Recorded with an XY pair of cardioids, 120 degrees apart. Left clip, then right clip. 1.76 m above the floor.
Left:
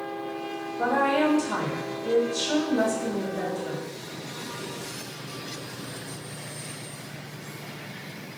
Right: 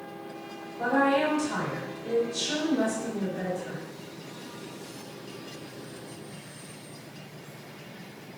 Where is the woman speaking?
45° left, 2.0 m.